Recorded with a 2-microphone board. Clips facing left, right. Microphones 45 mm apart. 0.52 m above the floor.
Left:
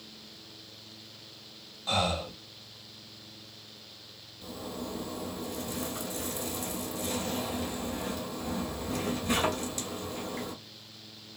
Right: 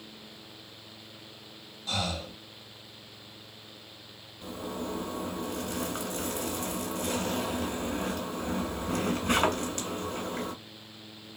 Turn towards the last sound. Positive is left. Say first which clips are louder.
# right 3 dB
turn(degrees=-60)  # may be behind; listen again after turning